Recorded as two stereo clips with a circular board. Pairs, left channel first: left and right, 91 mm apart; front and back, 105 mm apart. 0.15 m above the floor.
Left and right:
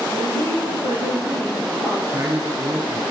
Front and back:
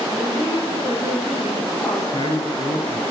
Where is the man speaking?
35° right, 2 m.